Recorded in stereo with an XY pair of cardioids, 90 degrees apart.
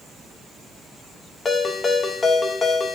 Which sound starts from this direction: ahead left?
A ringtone, at 1.4 s.